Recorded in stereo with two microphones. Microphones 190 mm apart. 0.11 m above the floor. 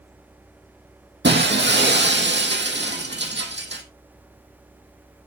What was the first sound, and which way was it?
Breaking glass, 75° right (ahead or behind).